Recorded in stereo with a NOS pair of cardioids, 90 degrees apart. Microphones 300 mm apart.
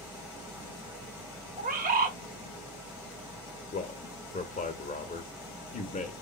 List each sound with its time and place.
0.0 s a machine running: 10° right, 1.4 m
1.6 s a bird: 30° right, 0.9 m
3.7 s a man speaking: 25° left, 0.9 m